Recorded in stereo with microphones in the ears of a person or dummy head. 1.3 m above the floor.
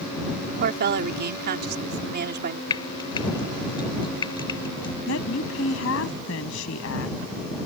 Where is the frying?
30° left (ahead or behind).